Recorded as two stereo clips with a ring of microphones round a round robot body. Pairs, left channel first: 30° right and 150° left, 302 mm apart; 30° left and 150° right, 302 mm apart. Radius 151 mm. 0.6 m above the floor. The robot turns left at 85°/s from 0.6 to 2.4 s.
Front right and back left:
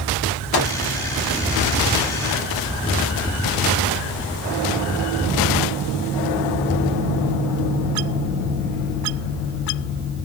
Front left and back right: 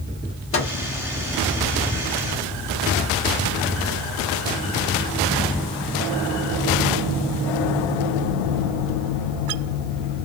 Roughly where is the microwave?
Ahead.